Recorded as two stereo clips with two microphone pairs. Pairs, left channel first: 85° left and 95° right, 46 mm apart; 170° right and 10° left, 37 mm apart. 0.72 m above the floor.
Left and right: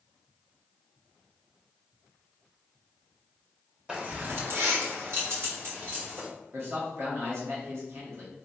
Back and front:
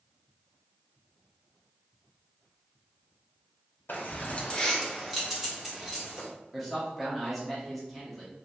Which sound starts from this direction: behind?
Keys jangling, at 3.9 s.